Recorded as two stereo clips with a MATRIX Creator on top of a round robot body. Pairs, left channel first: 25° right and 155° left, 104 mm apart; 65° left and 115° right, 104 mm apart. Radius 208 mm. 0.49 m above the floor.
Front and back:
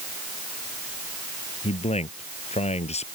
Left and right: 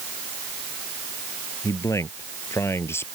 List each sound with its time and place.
1.6 s a man speaking: 5° left; by 3.1 s straight ahead